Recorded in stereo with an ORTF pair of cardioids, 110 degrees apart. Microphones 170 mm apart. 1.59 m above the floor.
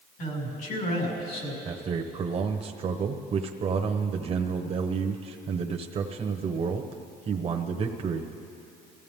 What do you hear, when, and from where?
0.2 s a man speaking: 70° left, 5.5 m
1.6 s a man speaking: 35° right, 1.0 m